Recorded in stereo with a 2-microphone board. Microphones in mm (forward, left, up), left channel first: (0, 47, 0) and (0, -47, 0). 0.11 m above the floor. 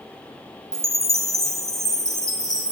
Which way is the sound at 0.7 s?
30° right (ahead or behind).